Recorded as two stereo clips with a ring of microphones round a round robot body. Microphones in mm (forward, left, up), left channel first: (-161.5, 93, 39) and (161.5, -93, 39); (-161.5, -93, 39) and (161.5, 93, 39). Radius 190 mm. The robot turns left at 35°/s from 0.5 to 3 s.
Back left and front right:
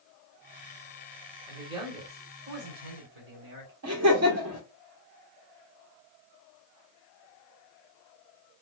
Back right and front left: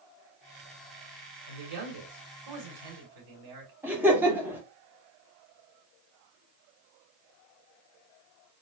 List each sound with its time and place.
1.5 s a man speaking: 60° left, 2.5 m; by 3.7 s 5° left, 2.5 m
3.8 s laughter: 55° right, 1.6 m